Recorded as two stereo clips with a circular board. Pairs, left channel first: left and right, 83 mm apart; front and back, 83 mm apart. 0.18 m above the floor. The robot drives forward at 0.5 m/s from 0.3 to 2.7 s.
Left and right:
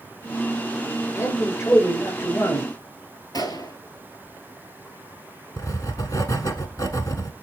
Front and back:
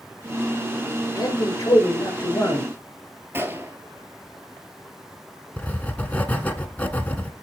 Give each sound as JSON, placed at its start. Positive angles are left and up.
{"t": 1.1, "sound": "a man speaking", "azimuth_deg": 40, "distance_m": 3.0}
{"t": 3.3, "sound": "a gunshot", "azimuth_deg": 120, "distance_m": 1.2}
{"t": 5.6, "sound": "writing", "azimuth_deg": 65, "distance_m": 0.9}